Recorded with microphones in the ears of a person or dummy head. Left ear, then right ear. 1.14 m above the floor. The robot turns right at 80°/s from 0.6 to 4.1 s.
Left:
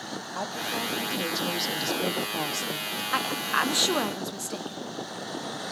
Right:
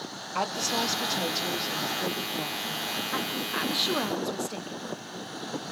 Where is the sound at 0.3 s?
65° right, 1.4 m; by 3.0 s 130° left, 1.4 m.